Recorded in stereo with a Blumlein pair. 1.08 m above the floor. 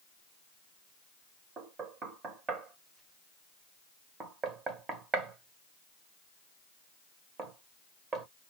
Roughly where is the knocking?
Ahead right.